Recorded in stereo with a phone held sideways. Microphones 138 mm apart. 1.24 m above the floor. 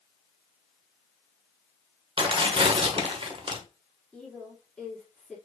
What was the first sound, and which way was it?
Tearing paper, 40° right (ahead or behind).